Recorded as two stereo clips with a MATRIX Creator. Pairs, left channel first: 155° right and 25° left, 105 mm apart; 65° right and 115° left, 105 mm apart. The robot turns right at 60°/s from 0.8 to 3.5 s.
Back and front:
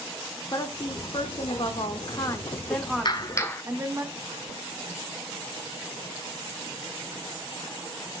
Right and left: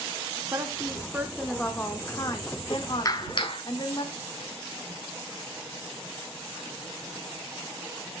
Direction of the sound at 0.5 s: 165° left.